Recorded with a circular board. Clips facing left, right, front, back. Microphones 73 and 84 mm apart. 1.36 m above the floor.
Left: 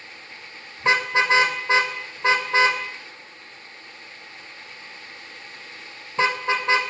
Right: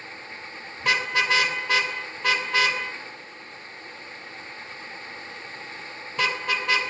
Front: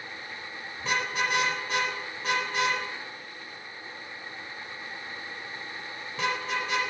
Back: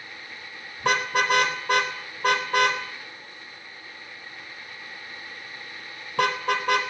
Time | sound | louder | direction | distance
0.8 | a car horn | left 4 dB, back 6 dB | 155° left | 3.5 m